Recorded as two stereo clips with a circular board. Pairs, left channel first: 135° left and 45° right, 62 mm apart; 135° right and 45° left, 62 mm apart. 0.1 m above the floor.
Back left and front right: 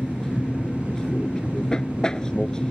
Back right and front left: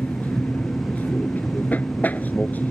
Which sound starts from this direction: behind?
An aircraft, at 0.0 s.